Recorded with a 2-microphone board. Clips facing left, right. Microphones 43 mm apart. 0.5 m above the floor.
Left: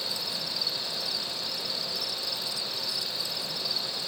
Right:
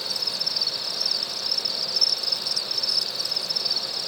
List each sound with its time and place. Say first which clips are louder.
0.0 s an insect: right 3 dB; 25° left (ahead or behind)